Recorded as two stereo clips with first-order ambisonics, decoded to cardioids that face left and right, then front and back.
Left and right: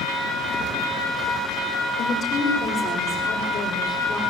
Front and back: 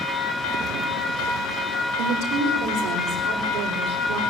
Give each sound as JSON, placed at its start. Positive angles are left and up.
{"t": 2.0, "sound": "a woman speaking", "azimuth_deg": 150, "distance_m": 8.5}